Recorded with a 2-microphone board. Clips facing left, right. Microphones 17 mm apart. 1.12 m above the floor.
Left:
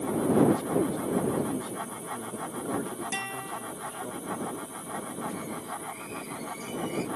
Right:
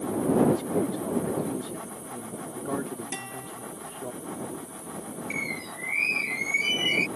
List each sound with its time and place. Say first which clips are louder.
0.5 s a man speaking: even; 15° right (ahead or behind)
3.1 s a guitar: left 4 dB; 35° left (ahead or behind)
5.3 s a bird: right 4 dB; 80° right